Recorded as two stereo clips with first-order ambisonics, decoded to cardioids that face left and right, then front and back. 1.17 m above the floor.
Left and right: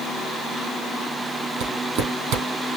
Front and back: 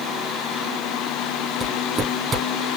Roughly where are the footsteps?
Right.